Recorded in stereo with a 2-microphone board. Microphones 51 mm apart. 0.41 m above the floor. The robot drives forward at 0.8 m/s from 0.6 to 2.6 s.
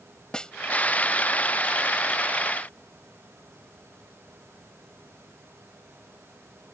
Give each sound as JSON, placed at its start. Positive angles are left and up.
{"t": 0.3, "sound": "a snare drum", "side_deg": 15}